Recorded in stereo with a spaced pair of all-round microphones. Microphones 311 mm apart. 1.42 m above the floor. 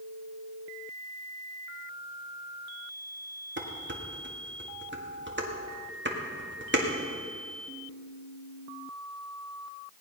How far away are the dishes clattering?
About 1.8 m.